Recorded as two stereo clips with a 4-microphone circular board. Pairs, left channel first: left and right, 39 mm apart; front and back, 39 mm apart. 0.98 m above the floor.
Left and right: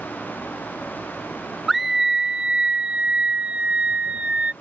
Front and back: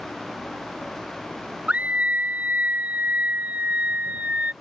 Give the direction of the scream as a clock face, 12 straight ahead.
6 o'clock.